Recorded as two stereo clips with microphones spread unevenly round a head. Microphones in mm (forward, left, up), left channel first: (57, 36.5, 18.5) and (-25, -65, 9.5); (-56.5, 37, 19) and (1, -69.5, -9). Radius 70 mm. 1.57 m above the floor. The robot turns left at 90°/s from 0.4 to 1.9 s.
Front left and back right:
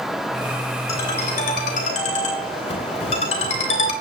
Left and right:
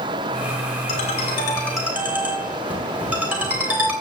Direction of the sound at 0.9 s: 115° left.